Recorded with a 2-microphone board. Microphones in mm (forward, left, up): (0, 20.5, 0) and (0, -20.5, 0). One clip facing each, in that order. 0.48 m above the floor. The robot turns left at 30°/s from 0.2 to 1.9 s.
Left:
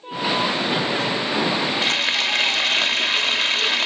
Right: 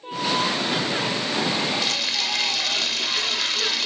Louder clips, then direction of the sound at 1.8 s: Left 5 dB; 35° left (ahead or behind).